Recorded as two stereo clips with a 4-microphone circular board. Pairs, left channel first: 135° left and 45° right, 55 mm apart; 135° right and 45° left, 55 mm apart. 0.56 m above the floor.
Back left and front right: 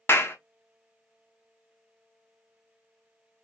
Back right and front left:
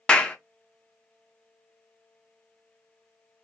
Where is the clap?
160° left, 0.6 m.